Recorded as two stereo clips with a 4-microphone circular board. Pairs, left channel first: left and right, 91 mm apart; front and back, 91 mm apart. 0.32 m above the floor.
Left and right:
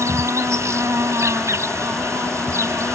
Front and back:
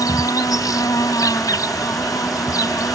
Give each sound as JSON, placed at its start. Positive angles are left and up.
{"t": 0.0, "sound": "an insect", "azimuth_deg": -40}